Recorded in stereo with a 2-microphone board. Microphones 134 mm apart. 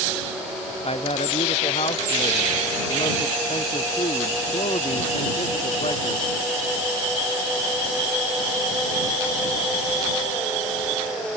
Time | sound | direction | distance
0.8 | a man speaking | 50° left (ahead or behind) | ?